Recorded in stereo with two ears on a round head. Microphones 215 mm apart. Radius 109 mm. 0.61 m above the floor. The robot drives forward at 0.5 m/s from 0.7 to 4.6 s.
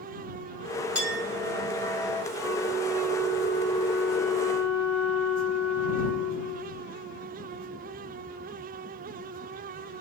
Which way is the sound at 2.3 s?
20° right (ahead or behind).